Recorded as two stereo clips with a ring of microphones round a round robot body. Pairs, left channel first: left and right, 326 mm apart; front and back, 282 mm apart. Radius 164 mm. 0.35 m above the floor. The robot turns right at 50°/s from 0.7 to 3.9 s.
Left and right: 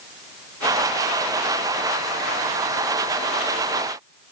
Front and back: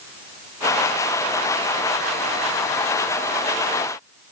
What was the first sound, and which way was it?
Only background noise.